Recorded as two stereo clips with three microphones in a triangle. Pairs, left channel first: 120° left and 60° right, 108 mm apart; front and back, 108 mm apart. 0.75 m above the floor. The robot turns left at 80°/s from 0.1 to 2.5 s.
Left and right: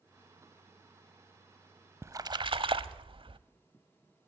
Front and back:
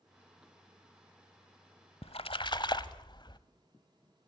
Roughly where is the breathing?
I don't hear breathing.